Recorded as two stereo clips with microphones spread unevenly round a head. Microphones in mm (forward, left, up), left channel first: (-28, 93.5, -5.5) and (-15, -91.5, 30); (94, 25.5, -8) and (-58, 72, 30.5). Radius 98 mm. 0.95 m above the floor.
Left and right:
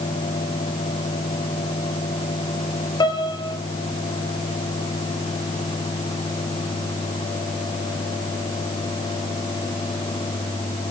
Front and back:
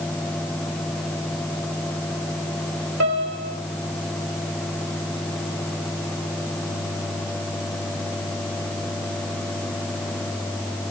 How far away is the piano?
About 3.5 m.